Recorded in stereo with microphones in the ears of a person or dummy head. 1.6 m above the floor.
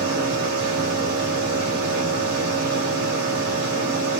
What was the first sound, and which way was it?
A machine running, 65° right (ahead or behind).